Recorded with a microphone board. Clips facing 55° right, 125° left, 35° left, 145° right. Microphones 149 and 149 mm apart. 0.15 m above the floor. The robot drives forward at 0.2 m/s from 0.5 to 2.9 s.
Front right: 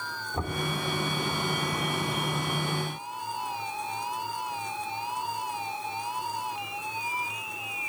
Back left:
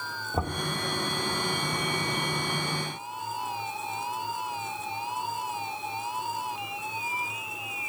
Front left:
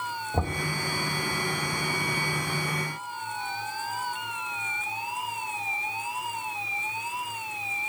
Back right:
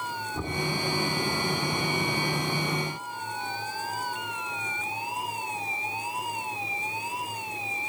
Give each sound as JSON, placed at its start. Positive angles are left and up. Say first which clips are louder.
{"t": 0.3, "sound": "knocking", "louder": "back left 2 dB, front left 5 dB", "azimuth_deg": 70, "distance_m": 5.5}